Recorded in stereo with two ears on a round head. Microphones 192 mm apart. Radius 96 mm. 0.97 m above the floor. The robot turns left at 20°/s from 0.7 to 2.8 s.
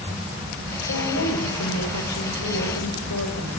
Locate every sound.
0.9 s a woman speaking: 120° left, 5.5 m; by 3.6 s 80° left, 5.5 m